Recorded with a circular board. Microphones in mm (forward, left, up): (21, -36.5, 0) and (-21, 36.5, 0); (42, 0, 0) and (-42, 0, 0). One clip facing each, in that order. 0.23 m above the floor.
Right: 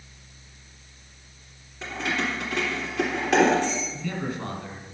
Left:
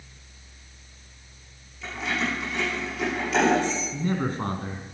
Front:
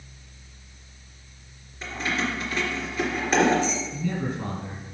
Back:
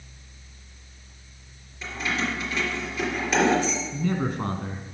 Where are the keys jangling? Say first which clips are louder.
Right 1 dB, even; 50° right, 3 m.